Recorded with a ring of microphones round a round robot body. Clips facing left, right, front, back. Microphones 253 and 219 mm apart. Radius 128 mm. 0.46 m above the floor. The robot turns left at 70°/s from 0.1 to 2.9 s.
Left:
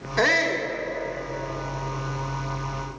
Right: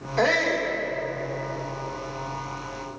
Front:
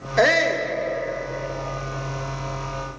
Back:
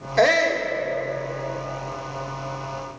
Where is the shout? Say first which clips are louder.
Right 1 dB, even; 80° left, 1.1 m; by 0.7 s 45° left, 1.1 m.